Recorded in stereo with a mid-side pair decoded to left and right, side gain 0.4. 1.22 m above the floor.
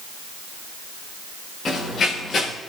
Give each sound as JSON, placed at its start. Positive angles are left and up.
{"t": 1.6, "sound": "running footsteps", "azimuth_deg": 55, "distance_m": 6.0}